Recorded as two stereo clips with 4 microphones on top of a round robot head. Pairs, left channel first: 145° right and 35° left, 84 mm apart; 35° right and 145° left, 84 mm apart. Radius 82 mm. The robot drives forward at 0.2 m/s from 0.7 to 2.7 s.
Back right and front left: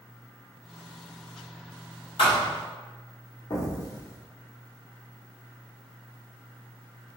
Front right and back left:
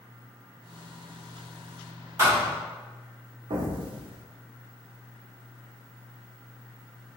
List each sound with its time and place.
2.2 s a thud: 160° right, 1.2 m
3.5 s an explosion: 165° left, 0.5 m